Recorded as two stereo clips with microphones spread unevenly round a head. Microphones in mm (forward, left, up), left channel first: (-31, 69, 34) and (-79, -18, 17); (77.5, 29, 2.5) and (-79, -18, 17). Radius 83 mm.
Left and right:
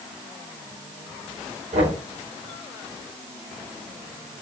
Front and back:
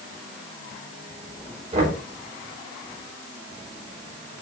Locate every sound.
1.7 s knocking: 105° right, 5 m